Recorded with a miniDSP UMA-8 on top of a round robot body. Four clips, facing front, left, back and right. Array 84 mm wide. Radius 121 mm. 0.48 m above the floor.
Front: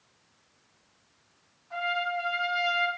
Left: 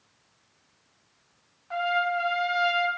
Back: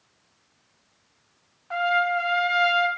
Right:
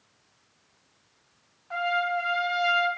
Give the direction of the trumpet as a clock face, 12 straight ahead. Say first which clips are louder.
Left 1 dB, back 8 dB; 6 o'clock.